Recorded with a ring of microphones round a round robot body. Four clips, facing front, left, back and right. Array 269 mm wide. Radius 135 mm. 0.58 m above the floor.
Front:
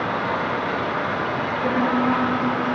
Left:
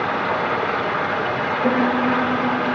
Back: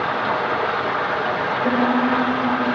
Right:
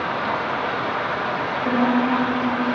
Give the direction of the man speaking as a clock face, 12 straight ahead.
No man speaking in this recording.